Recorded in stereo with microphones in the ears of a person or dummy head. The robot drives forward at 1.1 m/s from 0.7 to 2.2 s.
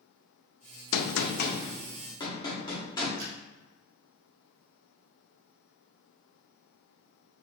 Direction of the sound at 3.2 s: 65° right (ahead or behind).